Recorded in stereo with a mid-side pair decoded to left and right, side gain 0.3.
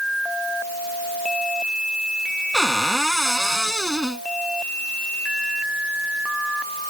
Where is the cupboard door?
Straight ahead.